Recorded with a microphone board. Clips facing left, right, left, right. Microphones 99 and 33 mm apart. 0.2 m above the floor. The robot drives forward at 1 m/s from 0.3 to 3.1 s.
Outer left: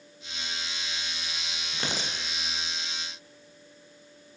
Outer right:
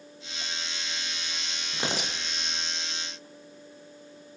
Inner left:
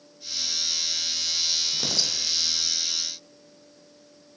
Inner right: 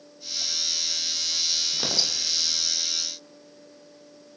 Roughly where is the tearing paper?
Centre.